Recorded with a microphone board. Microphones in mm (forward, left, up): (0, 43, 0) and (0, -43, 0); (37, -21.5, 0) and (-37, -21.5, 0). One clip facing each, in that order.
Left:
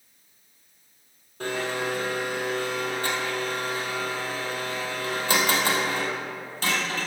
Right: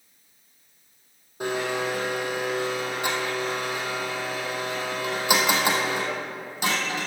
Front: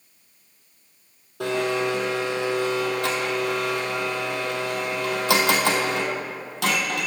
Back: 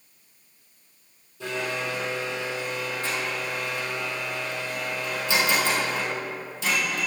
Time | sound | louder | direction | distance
1.4 | a blender | right 2 dB, front 6 dB | 15° right | 1.8 m